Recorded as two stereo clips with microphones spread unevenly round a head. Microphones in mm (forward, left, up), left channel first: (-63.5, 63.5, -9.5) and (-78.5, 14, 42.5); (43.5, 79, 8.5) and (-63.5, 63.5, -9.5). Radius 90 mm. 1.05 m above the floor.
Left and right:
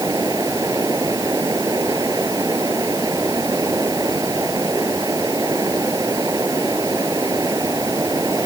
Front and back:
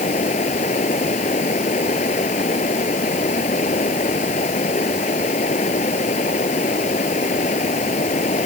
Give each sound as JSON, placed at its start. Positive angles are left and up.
{"t": 0.0, "sound": "running water", "azimuth_deg": -45}